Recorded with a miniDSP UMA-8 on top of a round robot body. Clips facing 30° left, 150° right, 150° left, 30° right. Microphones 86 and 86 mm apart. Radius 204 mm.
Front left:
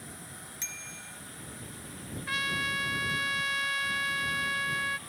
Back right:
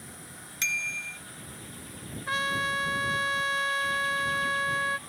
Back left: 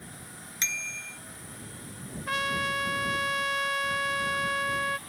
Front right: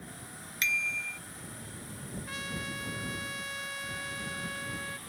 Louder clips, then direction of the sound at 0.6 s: Back right 10 dB, front right 5 dB; 150° right.